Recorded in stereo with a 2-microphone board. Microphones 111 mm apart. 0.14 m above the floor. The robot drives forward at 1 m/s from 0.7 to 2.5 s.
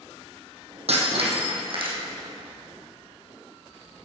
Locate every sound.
0.9 s breaking glass: 65° right (ahead or behind), 2.5 m; by 2.0 s 50° right (ahead or behind), 3 m